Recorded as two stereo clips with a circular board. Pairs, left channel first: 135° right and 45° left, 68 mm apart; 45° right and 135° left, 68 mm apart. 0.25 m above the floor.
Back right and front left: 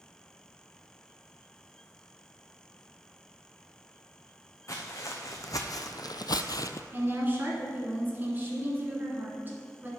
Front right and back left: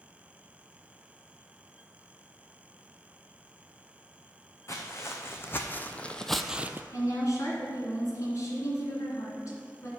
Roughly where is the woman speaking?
Ahead.